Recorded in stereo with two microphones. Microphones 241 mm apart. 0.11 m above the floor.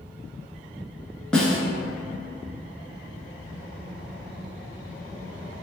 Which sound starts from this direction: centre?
A snare drum, at 1.3 s.